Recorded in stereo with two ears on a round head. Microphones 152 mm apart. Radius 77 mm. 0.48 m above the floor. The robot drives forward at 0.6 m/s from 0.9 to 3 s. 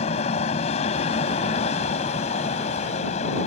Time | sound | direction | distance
0.0 | an aircraft | 35° left (ahead or behind) | ?